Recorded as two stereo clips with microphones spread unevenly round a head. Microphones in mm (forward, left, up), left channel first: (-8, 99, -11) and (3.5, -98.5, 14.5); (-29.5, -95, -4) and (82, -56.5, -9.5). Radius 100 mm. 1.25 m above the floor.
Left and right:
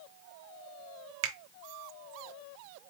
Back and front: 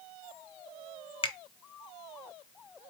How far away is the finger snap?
About 0.6 m.